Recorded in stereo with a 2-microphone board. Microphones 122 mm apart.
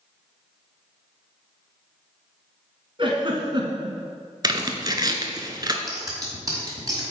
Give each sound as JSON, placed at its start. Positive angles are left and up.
{"t": 3.0, "sound": "a giggle", "side_deg": -45, "distance_m": 1.3}
{"t": 4.4, "sound": "tearing paper", "side_deg": -35, "distance_m": 0.8}
{"t": 5.9, "sound": "scissors", "side_deg": -30, "distance_m": 1.9}